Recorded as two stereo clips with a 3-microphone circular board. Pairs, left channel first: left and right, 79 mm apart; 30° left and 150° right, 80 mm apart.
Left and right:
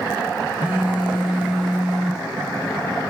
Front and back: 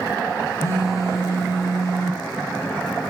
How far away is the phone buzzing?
About 0.5 m.